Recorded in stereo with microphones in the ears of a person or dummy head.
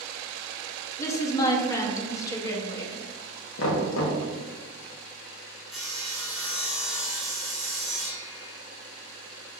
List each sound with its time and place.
1.0 s a woman speaking: 15° left (ahead or behind), 0.7 m
3.6 s knocking: 75° left (ahead or behind), 1.0 m
5.7 s sawing: centre (ahead or behind), 1.2 m